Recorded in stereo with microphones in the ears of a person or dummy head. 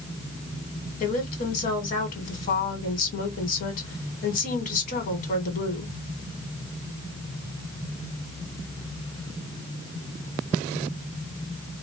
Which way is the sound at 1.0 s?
50° left (ahead or behind).